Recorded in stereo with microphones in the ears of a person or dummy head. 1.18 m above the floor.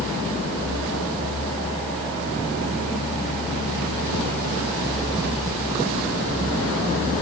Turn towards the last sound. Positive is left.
turn(degrees=30)  # may be behind; listen again after turning